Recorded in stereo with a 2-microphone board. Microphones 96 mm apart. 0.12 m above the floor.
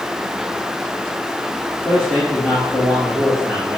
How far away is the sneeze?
I don't hear a sneeze.